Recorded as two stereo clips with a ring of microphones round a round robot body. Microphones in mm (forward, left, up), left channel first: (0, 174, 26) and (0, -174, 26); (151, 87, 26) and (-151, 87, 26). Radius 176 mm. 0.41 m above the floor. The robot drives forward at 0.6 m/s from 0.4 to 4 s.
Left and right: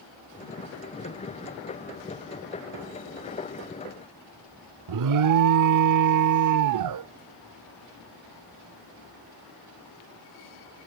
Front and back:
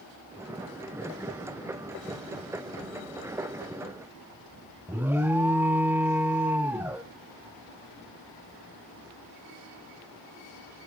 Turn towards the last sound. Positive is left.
turn(degrees=-95)